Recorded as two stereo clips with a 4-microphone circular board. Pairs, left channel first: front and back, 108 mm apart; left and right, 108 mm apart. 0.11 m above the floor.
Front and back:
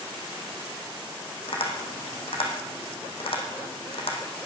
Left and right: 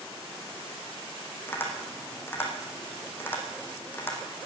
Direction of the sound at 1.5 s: 20° left.